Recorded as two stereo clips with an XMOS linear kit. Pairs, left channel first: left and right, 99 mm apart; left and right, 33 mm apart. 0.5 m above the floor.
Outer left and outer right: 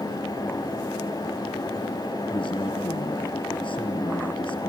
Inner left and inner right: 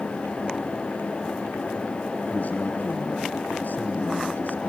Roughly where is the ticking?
I don't hear ticking.